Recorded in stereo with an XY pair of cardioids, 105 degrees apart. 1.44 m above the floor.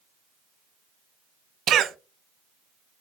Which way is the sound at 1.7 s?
65° right.